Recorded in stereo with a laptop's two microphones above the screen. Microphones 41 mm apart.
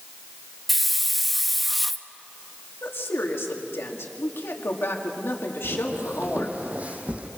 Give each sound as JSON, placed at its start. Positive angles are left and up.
{"t": 0.7, "sound": "a hiss", "side_deg": 0, "distance_m": 1.0}
{"t": 2.8, "sound": "a woman speaking", "side_deg": 70, "distance_m": 2.5}
{"t": 5.6, "sound": "footsteps", "side_deg": -45, "distance_m": 1.8}